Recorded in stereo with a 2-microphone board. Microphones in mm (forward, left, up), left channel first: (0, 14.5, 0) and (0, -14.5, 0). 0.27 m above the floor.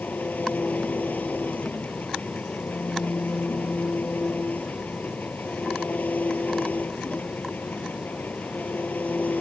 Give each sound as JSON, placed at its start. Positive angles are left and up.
{"t": 0.0, "sound": "an engine running", "side_deg": 75}